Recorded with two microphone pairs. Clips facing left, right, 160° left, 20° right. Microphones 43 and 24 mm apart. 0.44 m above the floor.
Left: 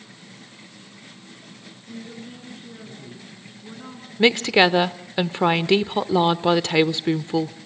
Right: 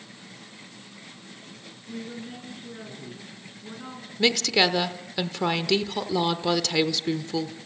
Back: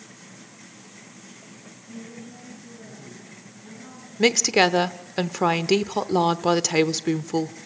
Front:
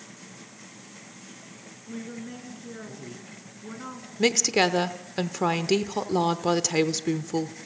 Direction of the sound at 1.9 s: 10° right.